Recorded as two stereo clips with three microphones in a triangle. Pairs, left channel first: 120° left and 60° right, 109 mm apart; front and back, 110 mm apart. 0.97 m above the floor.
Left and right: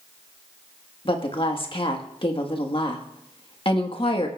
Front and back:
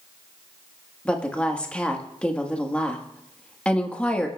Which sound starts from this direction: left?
A woman speaking, at 1.1 s.